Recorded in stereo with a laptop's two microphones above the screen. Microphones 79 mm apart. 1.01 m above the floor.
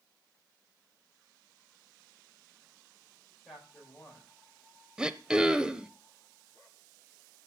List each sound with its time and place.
3.5 s a man speaking: centre (ahead or behind), 5 m
5.0 s throat clearing: 10° right (ahead or behind), 0.8 m